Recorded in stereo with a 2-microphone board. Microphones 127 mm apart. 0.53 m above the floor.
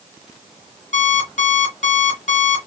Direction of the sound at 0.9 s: 70° left (ahead or behind).